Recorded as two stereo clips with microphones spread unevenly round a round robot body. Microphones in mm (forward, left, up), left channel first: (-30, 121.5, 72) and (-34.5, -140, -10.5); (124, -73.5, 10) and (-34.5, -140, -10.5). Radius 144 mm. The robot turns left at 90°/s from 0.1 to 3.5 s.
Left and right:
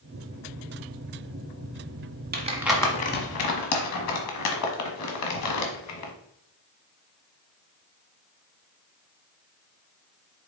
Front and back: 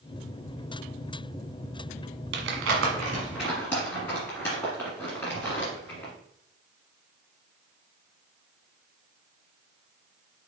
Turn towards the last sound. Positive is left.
turn(degrees=105)